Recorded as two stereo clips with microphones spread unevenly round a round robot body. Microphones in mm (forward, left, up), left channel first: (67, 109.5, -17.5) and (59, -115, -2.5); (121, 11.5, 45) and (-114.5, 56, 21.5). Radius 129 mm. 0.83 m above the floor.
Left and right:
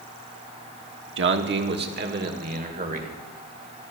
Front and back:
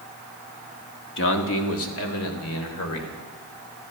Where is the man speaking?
60° right, 1.4 m; by 3.1 s 40° right, 3 m.